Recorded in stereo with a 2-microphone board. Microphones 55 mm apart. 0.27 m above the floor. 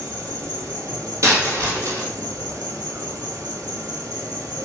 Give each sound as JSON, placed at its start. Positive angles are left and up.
{"t": 0.0, "sound": "an insect", "side_deg": -85, "distance_m": 0.9}
{"t": 1.2, "sound": "a dropped coin", "side_deg": -60, "distance_m": 1.8}